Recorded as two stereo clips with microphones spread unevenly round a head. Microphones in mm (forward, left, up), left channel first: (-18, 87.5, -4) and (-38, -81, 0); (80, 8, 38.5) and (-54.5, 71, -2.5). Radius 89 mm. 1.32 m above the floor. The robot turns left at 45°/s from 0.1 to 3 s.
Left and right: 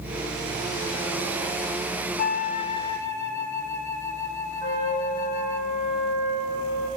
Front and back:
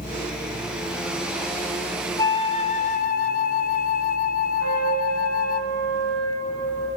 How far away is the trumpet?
About 7 m.